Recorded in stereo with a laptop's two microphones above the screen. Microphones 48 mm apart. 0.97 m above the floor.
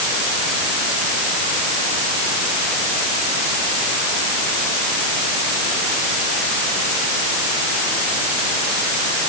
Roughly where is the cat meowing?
No cat meowing in this recording.